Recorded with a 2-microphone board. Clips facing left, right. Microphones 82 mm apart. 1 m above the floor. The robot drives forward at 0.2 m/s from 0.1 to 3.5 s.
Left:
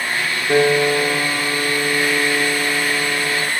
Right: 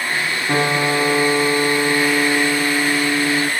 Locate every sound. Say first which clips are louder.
0.5 s a piano: left 4 dB; 80° right, 3.5 m; by 3.5 s 85° right, 3.5 m